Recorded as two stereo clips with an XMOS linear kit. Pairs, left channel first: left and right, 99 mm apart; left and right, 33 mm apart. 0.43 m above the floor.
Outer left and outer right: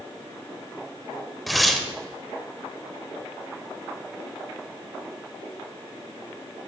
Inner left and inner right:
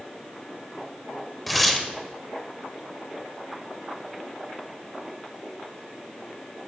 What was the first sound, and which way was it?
Tearing paper, centre (ahead or behind).